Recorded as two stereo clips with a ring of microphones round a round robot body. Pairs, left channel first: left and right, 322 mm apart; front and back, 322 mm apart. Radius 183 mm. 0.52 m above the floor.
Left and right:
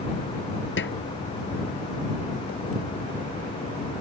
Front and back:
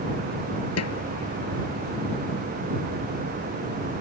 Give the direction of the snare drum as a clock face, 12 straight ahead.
11 o'clock.